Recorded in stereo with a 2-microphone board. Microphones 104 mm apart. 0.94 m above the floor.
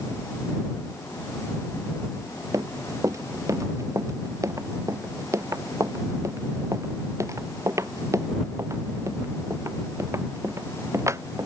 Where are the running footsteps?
35° right (ahead or behind); by 11.5 s 30° right (ahead or behind).